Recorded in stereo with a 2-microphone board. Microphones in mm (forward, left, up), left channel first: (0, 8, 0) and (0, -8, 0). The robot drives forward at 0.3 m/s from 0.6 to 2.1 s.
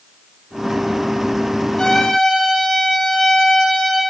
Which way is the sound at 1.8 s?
55° left (ahead or behind).